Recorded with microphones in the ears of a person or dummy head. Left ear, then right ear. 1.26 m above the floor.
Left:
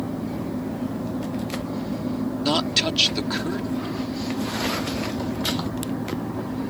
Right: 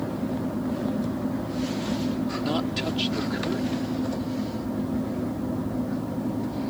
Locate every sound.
2.4 s a woman speaking: 35° left (ahead or behind)